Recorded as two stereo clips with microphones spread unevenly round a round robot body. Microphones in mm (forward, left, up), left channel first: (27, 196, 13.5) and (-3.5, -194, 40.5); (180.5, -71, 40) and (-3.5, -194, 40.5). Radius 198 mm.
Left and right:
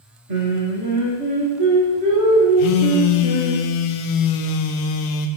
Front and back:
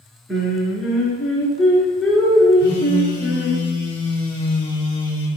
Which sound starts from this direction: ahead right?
Singing, at 0.3 s.